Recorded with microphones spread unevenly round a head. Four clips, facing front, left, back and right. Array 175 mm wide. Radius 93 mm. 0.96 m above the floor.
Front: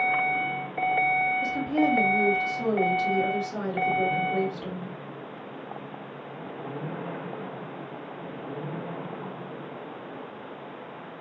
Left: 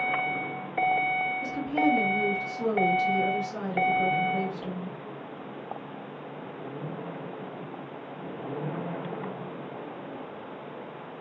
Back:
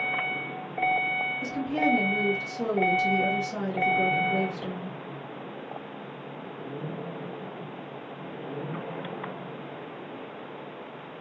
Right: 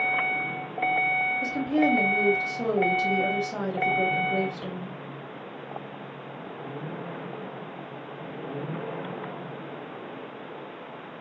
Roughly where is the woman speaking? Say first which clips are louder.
Right 3 dB, back 2 dB; right.